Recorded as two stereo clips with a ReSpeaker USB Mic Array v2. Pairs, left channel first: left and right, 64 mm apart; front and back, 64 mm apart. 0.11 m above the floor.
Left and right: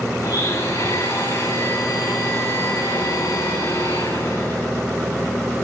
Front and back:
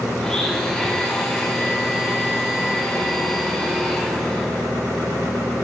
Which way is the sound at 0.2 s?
80° left.